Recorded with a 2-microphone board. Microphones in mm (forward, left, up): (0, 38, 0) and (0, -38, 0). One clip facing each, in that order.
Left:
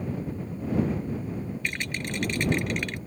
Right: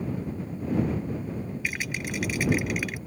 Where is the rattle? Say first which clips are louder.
Even; 10° right (ahead or behind).